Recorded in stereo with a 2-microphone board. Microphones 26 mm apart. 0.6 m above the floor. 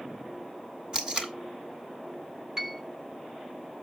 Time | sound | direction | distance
0.9 | tape being pulled | 30° right (ahead or behind) | 1.4 m
2.6 | a piano | 20° right (ahead or behind) | 1.2 m